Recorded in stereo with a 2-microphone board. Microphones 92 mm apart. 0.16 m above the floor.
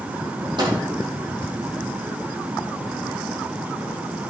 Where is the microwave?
60° right (ahead or behind), 4.5 m.